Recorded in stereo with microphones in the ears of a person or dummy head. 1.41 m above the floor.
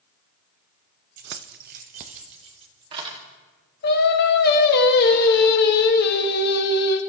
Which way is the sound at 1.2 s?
45° right (ahead or behind).